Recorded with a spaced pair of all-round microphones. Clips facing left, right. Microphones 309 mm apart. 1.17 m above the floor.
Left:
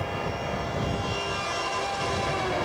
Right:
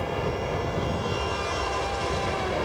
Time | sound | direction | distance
0.0 | an aircraft | 45° right (ahead or behind) | ?